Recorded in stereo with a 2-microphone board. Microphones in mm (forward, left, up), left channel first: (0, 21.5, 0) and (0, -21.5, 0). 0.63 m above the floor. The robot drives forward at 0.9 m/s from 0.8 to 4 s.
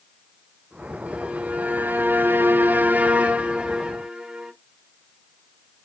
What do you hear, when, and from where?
1.1 s a violin: 25° right (ahead or behind), 1.4 m; by 4.5 s 20° right (ahead or behind), 1.7 m